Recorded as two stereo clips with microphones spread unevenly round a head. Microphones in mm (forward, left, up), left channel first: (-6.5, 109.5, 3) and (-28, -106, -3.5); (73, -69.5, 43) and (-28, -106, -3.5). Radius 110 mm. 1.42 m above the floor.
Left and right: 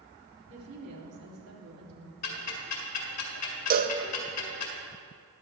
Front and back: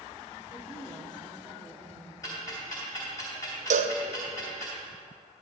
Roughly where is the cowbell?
Behind right.